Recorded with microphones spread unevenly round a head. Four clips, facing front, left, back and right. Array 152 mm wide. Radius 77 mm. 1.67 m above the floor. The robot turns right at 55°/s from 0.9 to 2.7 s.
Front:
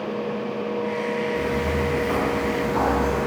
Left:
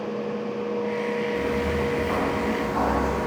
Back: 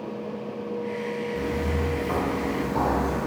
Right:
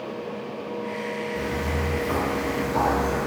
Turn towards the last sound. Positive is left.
turn(degrees=-35)